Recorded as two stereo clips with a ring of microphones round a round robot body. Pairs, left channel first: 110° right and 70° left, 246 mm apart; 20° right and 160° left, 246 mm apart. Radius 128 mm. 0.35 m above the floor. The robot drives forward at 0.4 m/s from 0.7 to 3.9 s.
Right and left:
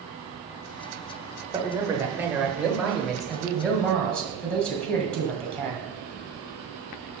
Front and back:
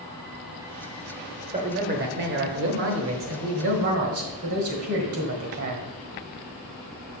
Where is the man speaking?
130° left, 1.0 m; by 5.9 s 160° left, 1.6 m.